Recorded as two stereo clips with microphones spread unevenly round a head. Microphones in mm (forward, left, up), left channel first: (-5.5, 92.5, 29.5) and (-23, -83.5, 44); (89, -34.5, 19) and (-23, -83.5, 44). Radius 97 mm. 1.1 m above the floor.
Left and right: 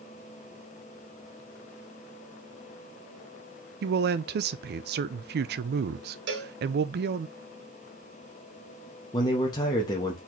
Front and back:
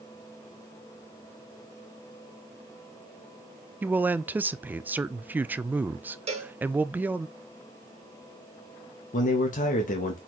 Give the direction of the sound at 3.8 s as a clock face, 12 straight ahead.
2 o'clock.